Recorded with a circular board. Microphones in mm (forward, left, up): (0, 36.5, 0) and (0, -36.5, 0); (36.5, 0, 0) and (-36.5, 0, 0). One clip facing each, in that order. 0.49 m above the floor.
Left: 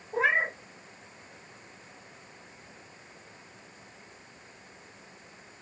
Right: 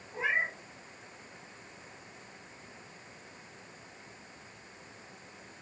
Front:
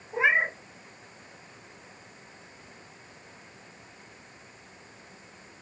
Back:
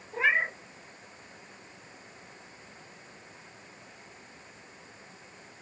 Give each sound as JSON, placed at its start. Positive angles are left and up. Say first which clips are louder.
{"t": 0.1, "sound": "a cat meowing", "louder": "left 6 dB, front 3 dB", "azimuth_deg": 70, "distance_m": 0.6}